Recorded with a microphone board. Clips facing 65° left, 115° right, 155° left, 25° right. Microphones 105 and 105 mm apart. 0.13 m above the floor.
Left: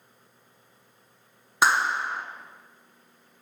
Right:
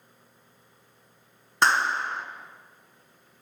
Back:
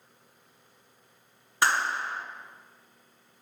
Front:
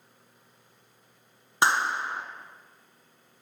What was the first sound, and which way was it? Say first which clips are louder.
A clap: even, front 2 dB; 5° right.